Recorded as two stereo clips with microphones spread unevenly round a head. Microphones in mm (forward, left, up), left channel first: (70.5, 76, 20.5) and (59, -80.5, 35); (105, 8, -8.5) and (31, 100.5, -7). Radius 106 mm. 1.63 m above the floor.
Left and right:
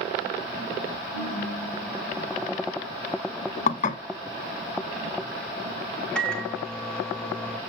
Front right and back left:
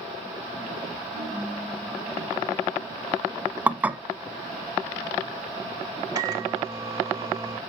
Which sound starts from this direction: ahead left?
Dishes clattering, at 3.7 s.